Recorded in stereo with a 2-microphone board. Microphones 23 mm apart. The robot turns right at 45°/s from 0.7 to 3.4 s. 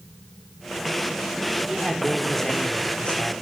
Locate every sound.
1.7 s a man speaking: 15° right, 4 m; by 3.3 s 60° left, 4 m